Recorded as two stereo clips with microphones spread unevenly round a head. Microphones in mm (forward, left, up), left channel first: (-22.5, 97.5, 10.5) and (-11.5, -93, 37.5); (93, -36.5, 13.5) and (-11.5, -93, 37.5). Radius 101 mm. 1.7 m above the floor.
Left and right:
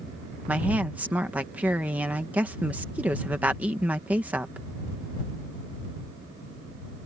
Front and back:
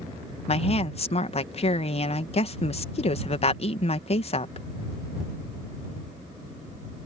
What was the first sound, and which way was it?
A woman speaking, 5° right.